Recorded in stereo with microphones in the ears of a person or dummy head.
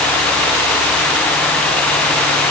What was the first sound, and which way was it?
Only background noise.